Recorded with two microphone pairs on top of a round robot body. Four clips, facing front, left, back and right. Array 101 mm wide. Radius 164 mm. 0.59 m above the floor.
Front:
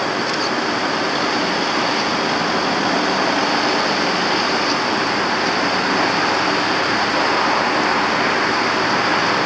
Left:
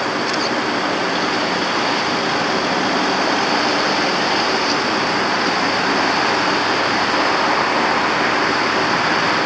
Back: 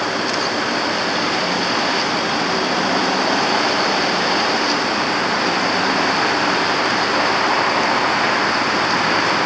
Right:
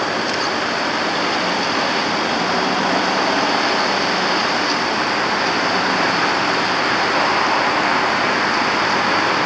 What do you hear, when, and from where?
Only background noise.